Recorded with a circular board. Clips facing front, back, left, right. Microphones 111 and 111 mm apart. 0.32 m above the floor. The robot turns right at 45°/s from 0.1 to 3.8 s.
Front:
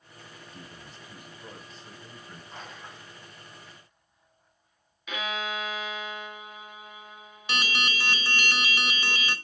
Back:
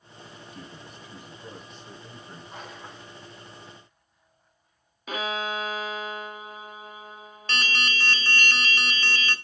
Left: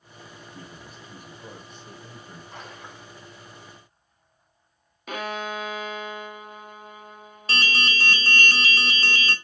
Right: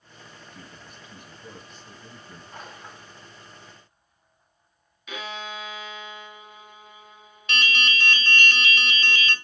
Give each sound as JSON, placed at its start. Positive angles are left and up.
{"t": 0.5, "sound": "a man speaking", "azimuth_deg": 35, "distance_m": 2.0}
{"t": 2.5, "sound": "a splash", "azimuth_deg": 100, "distance_m": 5.0}
{"t": 5.1, "sound": "a violin", "azimuth_deg": 130, "distance_m": 0.9}
{"t": 7.5, "sound": "an alarm", "azimuth_deg": 70, "distance_m": 0.8}